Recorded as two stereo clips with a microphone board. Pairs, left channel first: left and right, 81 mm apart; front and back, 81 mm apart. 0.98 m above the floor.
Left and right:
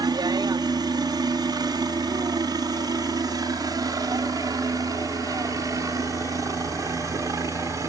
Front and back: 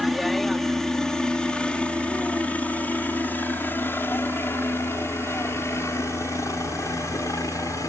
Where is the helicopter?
90° right; by 7.9 s 45° right.